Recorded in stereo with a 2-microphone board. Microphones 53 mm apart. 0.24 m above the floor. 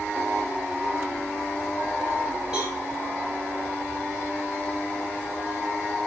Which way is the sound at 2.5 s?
10° right (ahead or behind).